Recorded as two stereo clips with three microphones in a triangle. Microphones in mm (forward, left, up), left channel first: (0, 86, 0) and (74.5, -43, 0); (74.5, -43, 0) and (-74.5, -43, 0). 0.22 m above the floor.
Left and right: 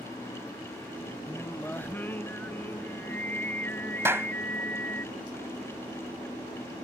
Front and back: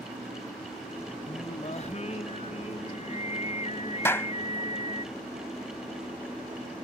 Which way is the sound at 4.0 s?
30° right.